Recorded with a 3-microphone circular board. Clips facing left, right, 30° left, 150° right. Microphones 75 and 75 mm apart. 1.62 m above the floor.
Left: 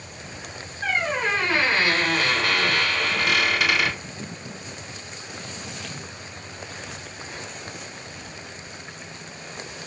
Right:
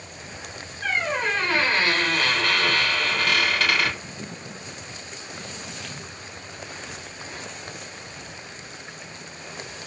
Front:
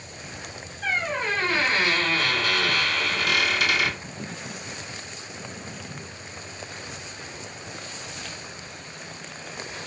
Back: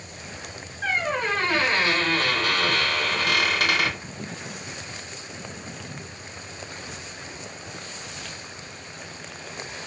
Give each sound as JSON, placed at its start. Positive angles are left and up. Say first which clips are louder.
{"t": 0.8, "sound": "a squeak", "louder": "left 1 dB, back 1 dB", "azimuth_deg": 170, "distance_m": 3.0}